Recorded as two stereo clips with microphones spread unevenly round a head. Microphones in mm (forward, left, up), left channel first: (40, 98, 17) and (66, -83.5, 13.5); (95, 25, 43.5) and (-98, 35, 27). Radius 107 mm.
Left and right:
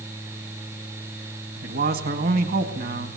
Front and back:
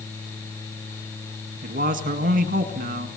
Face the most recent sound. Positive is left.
turn(degrees=-130)